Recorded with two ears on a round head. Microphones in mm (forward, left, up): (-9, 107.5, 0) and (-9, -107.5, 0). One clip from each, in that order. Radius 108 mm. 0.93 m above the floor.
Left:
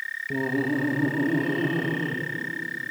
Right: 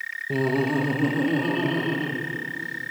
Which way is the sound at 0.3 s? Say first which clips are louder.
Right 3 dB; 50° right (ahead or behind).